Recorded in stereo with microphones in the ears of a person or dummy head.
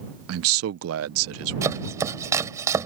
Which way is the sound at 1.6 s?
15° right (ahead or behind).